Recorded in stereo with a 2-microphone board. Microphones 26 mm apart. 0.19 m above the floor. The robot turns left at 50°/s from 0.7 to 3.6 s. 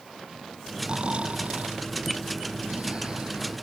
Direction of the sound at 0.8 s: 30° right (ahead or behind).